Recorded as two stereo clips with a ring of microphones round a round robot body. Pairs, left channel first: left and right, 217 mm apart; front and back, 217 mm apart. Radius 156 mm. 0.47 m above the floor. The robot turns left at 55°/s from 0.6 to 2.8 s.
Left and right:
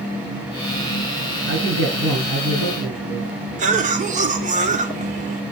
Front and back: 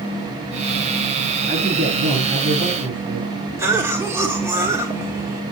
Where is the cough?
110° right, 1.3 m.